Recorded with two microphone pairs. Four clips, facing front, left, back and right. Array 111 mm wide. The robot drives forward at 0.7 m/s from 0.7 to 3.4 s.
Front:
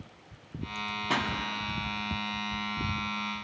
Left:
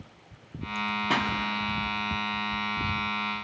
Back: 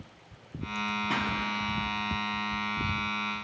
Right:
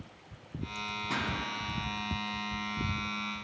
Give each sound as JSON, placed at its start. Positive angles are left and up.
{"t": 1.1, "sound": "a pop", "azimuth_deg": 65, "distance_m": 0.8}